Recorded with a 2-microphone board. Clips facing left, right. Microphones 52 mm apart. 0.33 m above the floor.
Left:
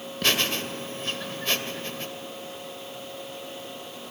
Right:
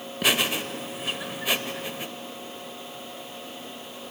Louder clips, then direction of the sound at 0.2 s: Right 1 dB; 10° right (ahead or behind).